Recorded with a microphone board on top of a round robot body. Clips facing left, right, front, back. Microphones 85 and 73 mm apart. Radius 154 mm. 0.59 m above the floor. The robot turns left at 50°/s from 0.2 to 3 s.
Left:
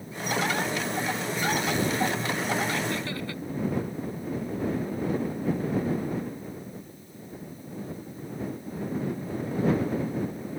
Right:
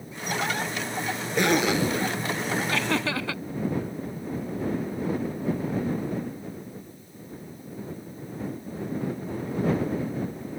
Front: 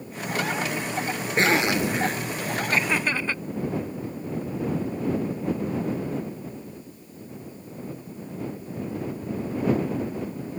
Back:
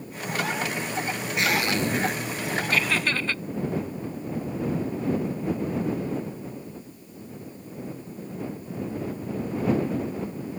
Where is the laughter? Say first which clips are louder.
Right 4 dB, front 1 dB; 60° right; by 3.4 s 75° right.